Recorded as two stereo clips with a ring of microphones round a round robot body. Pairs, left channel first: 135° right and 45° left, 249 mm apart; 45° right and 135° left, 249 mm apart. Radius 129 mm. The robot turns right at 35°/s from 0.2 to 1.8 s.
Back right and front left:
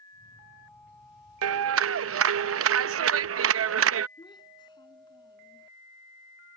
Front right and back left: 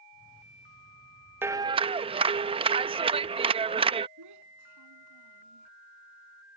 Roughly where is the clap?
Ahead left.